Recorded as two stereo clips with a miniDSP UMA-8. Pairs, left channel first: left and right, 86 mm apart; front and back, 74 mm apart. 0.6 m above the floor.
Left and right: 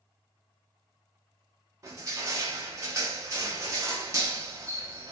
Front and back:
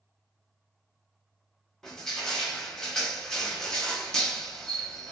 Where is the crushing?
85° right, 0.7 m.